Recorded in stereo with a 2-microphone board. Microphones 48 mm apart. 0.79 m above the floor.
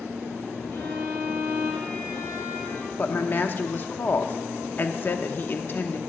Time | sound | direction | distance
0.7 | a violin | 50° left (ahead or behind) | 3.5 m
3.0 | a woman speaking | 40° left (ahead or behind) | 1.1 m